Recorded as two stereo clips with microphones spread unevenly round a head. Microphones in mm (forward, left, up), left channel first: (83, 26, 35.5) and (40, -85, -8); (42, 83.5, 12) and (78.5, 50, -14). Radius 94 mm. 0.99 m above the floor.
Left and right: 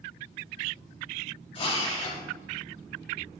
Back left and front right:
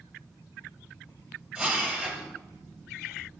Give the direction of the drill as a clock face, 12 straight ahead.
11 o'clock.